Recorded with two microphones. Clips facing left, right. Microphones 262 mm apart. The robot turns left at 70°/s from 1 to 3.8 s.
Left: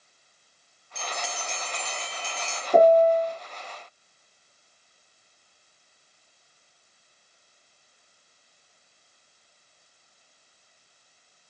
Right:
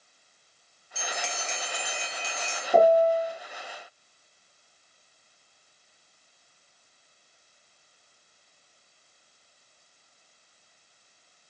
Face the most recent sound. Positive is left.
turn(degrees=80)